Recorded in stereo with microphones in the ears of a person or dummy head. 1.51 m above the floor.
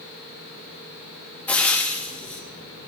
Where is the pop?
No pop in this recording.